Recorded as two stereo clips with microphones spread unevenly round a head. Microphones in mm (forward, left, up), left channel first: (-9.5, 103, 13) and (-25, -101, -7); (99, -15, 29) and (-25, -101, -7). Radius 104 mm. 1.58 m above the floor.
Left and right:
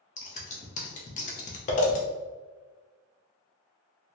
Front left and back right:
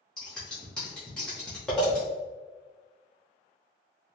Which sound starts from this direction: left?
Scissors, at 0.2 s.